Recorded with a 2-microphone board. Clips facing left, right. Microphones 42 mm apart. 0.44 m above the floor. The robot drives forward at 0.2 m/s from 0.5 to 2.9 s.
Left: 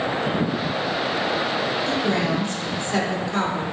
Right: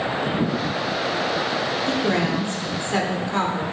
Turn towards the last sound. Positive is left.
turn(degrees=-30)  # may be behind; listen again after turning